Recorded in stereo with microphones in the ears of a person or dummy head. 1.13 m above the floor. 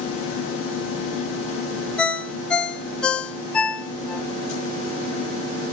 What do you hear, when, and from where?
2.0 s a ringtone: 5° left (ahead or behind), 1.0 m